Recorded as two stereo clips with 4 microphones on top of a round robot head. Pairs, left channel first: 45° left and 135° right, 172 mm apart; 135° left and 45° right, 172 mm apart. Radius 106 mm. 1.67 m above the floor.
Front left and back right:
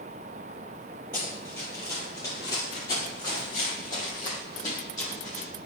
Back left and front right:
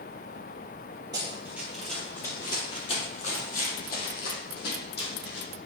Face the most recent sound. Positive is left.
turn(degrees=115)